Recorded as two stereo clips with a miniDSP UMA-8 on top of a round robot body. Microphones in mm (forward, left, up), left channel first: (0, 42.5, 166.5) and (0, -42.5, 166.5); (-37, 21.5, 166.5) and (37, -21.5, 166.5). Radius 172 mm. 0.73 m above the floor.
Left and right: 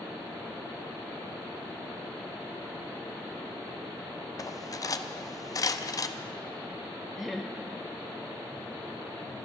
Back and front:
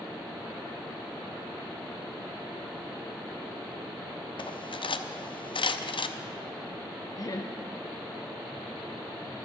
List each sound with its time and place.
4.4 s cutlery clinking: 140° left, 0.8 m
7.2 s laughter: straight behind, 1.1 m